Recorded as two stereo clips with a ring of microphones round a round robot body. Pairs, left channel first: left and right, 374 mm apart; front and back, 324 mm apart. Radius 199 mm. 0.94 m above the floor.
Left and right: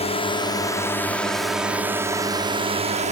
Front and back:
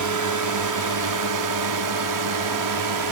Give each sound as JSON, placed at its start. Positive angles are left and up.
{"t": 0.0, "sound": "a drone", "azimuth_deg": 165}